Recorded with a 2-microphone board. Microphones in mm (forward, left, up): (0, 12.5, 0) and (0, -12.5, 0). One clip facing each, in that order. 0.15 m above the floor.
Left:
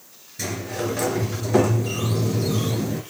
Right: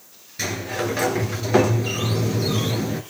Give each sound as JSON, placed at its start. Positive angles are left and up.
{"t": 0.4, "sound": "a sliding door", "side_deg": -35, "distance_m": 2.0}